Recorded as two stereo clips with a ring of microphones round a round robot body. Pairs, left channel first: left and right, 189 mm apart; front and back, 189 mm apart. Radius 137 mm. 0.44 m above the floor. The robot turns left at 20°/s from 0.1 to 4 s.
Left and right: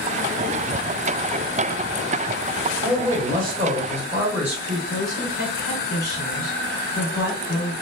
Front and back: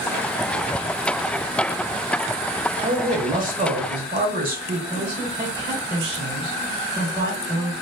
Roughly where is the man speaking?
Behind right.